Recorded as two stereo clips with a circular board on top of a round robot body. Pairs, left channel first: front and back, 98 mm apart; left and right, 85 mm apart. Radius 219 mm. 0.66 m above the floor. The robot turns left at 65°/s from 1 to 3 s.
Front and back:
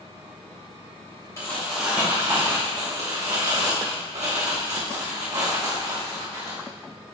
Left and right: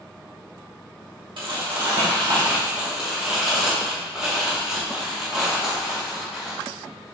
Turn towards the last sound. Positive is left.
turn(degrees=-170)